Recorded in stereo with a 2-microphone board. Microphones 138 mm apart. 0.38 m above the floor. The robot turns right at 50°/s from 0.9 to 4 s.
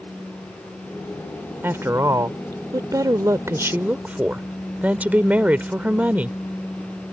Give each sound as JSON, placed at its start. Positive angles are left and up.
{"t": 1.6, "sound": "a woman speaking", "side_deg": -15}